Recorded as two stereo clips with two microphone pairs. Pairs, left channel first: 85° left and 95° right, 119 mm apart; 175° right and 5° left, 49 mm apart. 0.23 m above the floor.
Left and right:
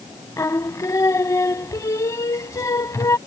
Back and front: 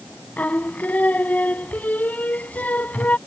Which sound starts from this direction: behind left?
Singing, at 0.4 s.